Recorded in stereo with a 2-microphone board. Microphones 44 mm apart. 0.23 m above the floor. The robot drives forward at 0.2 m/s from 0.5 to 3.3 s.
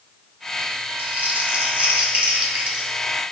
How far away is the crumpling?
About 0.5 m.